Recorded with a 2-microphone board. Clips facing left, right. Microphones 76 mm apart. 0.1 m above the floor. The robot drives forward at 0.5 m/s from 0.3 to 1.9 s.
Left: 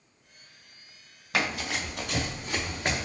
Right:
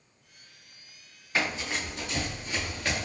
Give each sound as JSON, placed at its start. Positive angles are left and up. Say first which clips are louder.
{"t": 1.3, "sound": "running footsteps", "louder": "left 1 dB", "side_deg": 80, "distance_m": 1.3}